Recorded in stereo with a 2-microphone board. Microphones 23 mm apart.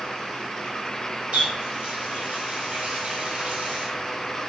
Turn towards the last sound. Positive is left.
turn(degrees=-55)  # may be behind; listen again after turning